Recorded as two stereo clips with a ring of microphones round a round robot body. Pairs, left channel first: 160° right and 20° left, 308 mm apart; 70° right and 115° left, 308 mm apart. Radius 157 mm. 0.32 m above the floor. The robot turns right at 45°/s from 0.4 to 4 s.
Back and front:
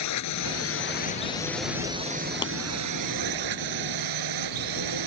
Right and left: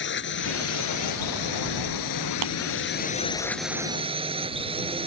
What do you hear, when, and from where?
0.0 s a drone: 125° right; by 5.1 s 40° left
2.4 s tapping: 125° left; by 2.5 s 130° left